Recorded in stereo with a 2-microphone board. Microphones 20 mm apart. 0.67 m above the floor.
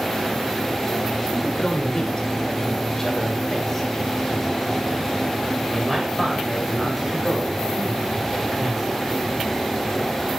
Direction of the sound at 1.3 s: 45° left (ahead or behind).